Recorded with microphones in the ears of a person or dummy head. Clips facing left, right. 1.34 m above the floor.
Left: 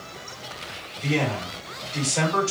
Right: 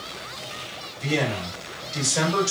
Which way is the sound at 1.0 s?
40° right (ahead or behind).